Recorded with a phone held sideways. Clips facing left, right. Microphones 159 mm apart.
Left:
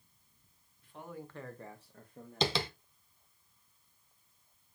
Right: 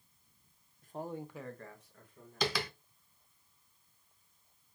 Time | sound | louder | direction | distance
0.8 | a man speaking | right 5 dB | 45° right (ahead or behind) | 0.8 m
2.4 | tapping | left 2 dB | 25° left (ahead or behind) | 0.5 m